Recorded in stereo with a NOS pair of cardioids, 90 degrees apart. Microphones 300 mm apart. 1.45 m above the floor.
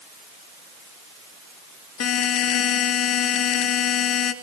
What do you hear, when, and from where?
2.0 s a buzzer: 55° left, 3 m